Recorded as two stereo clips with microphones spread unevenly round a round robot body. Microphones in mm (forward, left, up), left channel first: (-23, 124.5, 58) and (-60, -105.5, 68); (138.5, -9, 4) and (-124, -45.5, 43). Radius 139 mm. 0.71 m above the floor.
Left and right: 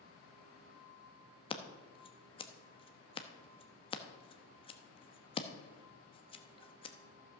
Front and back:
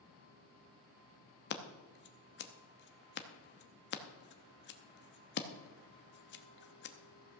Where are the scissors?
25° left, 0.9 m.